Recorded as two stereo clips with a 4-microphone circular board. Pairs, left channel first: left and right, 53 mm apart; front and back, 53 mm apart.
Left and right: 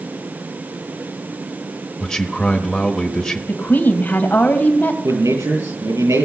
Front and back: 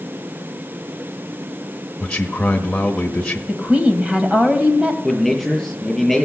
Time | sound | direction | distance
2.0 | a man speaking | 40° left | 1.0 m
3.5 | a woman speaking | 120° left | 2 m
5.0 | a man speaking | 90° right | 7 m